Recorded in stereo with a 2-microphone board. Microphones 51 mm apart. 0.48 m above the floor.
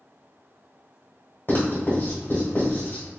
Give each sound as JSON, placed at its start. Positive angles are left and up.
{"t": 1.5, "sound": "writing", "side_deg": 40, "distance_m": 1.7}